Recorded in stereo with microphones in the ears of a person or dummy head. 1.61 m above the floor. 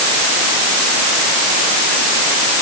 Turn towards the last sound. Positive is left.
No sound to turn to.